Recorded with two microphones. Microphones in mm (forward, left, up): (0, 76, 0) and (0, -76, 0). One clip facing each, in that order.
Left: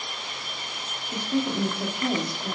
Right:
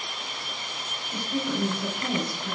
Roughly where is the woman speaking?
Left.